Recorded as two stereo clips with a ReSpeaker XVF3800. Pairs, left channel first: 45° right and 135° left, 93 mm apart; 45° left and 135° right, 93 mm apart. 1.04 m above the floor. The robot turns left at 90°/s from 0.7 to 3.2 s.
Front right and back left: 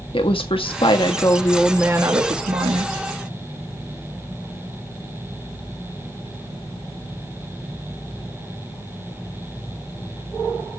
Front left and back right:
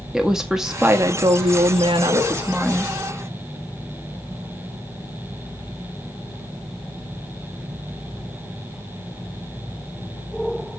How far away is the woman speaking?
About 1.4 m.